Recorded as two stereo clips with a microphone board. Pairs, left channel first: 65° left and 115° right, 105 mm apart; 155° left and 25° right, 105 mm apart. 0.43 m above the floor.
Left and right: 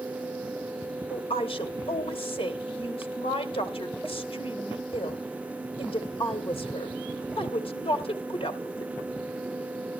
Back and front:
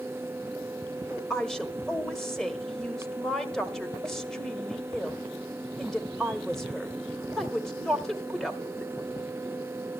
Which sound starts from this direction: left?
A woman speaking, at 1.1 s.